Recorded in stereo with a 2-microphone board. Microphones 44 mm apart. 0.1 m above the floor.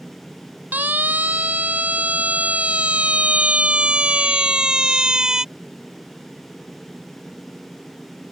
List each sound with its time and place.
0.7 s a siren: 40° right (ahead or behind); by 5.5 s 15° right (ahead or behind)